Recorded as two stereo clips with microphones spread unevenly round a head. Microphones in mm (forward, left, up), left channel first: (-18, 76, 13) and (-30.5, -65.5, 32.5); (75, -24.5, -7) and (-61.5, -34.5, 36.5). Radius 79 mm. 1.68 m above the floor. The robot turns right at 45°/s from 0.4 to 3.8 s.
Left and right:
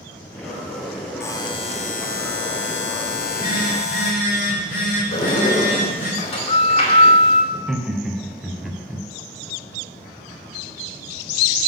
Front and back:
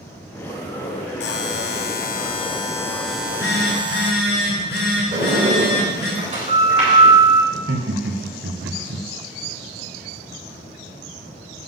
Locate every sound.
1.2 s a buzzer: 10° left, 0.9 m; by 4.1 s 125° left, 0.9 m
3.1 s a phone buzzing: 10° left, 5.5 m; by 6.1 s 40° left, 5.5 m
5.1 s a sliding door: 130° left, 4 m
7.5 s laughter: 175° left, 1.3 m